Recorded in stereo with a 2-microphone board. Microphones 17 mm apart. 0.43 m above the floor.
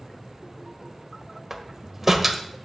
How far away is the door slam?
About 1.4 m.